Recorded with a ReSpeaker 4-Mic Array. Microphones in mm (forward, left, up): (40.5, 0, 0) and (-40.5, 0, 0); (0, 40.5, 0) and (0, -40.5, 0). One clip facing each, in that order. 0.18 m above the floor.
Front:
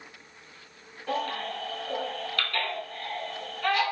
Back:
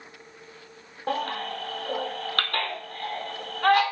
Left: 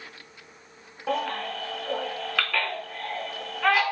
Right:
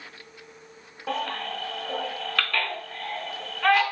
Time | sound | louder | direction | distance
1.1 | a baby crying | back 2 dB, left 2 dB | 175° left | 0.6 m